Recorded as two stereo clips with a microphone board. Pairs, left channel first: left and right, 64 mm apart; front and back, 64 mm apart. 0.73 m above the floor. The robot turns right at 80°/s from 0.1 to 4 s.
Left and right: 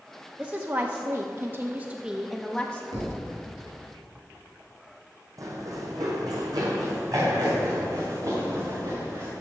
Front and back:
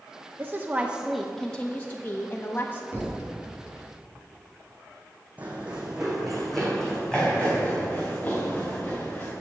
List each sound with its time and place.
0.4 s a woman speaking: 160° right, 0.7 m; by 2.8 s 35° left, 0.7 m
2.9 s a thud: 115° right, 3 m; by 3.3 s 85° right, 3 m
5.4 s running footsteps: 115° right, 1.8 m; by 9.3 s 60° right, 4 m